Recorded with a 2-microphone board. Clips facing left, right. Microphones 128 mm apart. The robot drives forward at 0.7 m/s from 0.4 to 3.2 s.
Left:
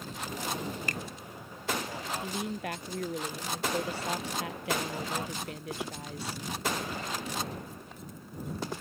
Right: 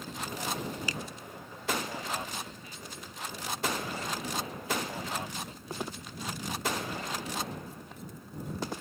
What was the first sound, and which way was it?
A finger snap, 55° left (ahead or behind).